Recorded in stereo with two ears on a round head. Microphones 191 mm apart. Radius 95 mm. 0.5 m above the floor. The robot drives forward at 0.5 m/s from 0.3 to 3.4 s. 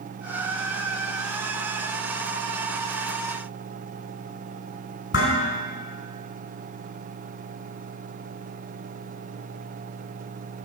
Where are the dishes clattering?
60° left (ahead or behind), 4 m.